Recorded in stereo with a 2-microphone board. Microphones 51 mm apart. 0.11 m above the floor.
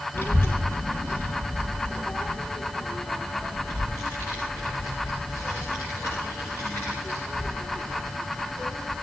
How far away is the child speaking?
About 2.5 m.